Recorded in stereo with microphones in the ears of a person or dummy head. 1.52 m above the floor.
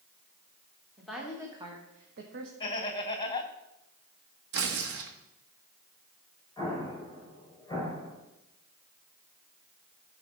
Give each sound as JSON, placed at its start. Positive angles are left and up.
{"t": 1.0, "sound": "a woman speaking", "side_deg": 0, "distance_m": 1.9}
{"t": 2.6, "sound": "laughter", "side_deg": 25, "distance_m": 1.7}
{"t": 4.5, "sound": "tearing paper", "side_deg": -60, "distance_m": 1.4}
{"t": 6.6, "sound": "an explosion", "side_deg": 15, "distance_m": 5.5}